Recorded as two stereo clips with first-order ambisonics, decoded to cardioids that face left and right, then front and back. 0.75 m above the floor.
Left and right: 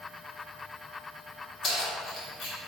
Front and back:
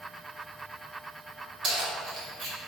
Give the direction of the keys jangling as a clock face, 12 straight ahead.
8 o'clock.